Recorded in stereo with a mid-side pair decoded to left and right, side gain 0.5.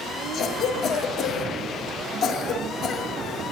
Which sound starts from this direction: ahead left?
A cough, at 0.3 s.